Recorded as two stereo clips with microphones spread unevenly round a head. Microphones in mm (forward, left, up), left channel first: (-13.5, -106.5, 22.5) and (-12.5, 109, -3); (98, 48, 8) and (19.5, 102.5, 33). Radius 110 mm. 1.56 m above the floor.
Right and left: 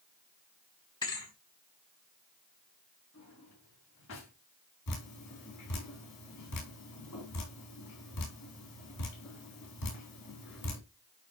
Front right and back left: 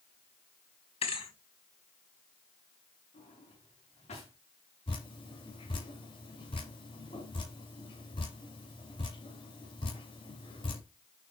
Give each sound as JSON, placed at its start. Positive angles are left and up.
{"t": 1.0, "sound": "a thud", "azimuth_deg": -20, "distance_m": 3.5}
{"t": 3.1, "sound": "a drawer", "azimuth_deg": -60, "distance_m": 6.0}
{"t": 4.9, "sound": "dripping", "azimuth_deg": -90, "distance_m": 4.0}